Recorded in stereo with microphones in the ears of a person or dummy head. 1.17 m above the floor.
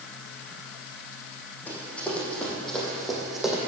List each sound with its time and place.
1.7 s running footsteps: 10° left (ahead or behind), 3.5 m; by 3.6 s 5° right (ahead or behind), 2.5 m